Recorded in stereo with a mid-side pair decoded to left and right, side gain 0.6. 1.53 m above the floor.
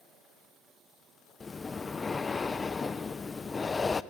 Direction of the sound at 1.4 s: 25° left.